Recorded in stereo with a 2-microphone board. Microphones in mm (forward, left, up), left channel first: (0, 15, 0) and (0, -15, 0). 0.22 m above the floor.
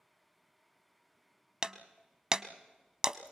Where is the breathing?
I don't hear breathing.